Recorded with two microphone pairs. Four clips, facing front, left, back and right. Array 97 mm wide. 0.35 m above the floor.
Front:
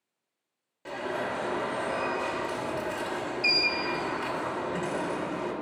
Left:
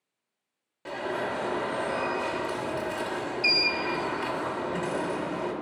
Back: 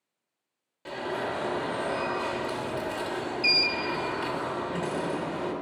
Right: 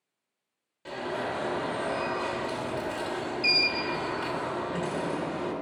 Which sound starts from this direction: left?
An alarm, at 0.8 s.